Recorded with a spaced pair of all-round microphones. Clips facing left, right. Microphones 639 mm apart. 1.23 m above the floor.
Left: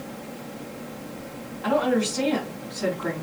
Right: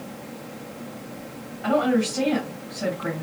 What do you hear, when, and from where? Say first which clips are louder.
1.6 s a woman speaking: right 2 dB; 5° right (ahead or behind), 1.7 m